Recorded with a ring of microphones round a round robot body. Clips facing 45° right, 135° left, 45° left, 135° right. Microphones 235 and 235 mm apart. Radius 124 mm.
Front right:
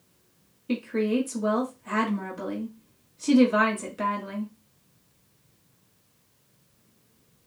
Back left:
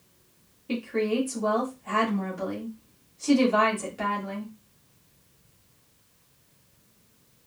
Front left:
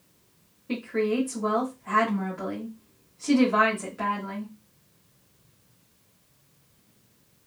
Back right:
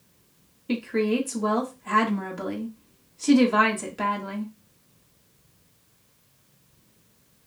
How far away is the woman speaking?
About 1.5 m.